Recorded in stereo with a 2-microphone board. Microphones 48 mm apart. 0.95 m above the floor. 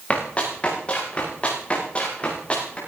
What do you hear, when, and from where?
0.1 s running footsteps: 30° left (ahead or behind), 8 m; by 2.8 s 25° left (ahead or behind), 9.5 m